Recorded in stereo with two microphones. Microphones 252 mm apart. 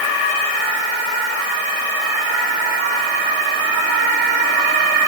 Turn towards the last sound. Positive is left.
No sound to turn to.